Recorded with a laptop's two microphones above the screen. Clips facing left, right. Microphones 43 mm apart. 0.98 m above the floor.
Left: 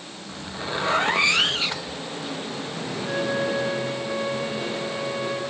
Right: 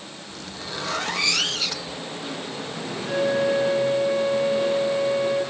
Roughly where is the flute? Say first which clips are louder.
Right 4 dB; centre.